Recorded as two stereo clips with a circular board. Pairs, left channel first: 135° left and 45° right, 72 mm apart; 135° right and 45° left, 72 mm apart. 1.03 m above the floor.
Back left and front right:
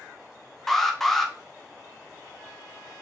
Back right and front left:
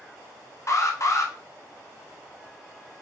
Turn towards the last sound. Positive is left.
turn(degrees=-140)